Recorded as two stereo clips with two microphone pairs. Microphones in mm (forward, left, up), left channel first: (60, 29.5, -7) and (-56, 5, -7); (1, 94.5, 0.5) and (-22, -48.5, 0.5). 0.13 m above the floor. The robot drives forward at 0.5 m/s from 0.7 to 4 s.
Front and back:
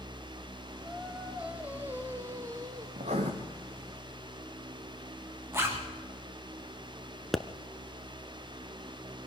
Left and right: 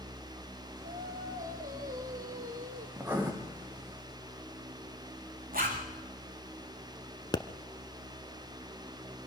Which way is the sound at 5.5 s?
100° right.